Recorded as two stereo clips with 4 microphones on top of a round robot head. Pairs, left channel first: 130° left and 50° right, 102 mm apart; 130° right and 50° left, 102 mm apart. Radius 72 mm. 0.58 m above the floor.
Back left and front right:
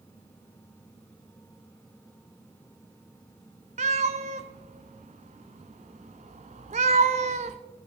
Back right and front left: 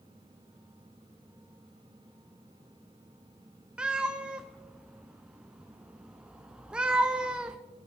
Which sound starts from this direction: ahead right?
A cat meowing, at 3.8 s.